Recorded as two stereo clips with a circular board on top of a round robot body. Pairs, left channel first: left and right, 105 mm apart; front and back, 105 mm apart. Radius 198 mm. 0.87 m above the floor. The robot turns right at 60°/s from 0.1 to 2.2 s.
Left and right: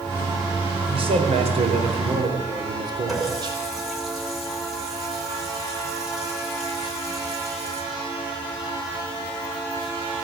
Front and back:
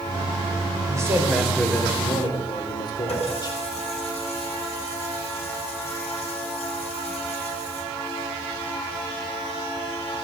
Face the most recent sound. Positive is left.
turn(degrees=-5)